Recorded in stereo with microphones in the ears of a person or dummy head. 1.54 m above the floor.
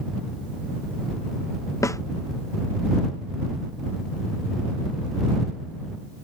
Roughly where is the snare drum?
Centre.